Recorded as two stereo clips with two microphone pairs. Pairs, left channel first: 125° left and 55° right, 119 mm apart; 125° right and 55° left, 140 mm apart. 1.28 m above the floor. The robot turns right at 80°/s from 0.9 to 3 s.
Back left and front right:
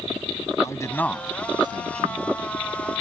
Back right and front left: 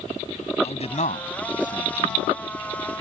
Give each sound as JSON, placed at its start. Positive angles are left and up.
{"t": 0.6, "sound": "a man speaking", "azimuth_deg": -170}